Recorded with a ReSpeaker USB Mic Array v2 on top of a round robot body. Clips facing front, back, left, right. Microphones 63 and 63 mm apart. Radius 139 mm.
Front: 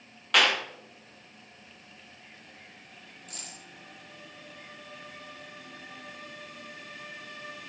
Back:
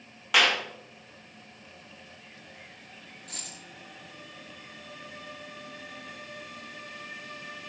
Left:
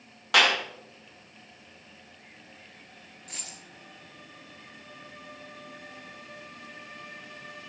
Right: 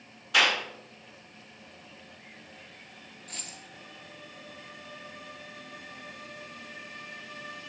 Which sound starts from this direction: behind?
A dropped coin, at 3.3 s.